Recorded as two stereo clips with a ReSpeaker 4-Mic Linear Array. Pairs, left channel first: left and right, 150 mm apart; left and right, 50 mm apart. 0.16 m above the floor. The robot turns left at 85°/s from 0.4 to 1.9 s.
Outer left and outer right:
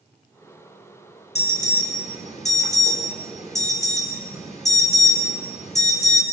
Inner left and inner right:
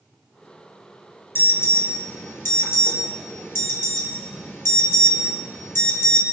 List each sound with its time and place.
1.4 s an alarm: 55° left (ahead or behind), 4.5 m